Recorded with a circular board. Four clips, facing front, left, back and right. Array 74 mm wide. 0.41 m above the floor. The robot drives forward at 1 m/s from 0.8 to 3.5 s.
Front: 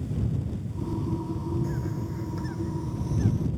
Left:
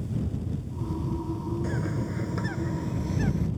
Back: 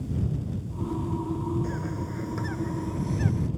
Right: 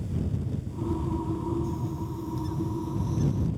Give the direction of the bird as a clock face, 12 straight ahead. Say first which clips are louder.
Left 2 dB, even; 8 o'clock.